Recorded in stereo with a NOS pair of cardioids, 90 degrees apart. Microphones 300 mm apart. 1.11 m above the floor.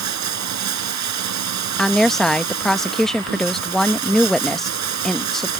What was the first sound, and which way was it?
Running water, 65° right.